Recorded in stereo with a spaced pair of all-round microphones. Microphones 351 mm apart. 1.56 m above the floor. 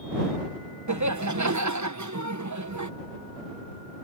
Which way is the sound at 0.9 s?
55° right (ahead or behind).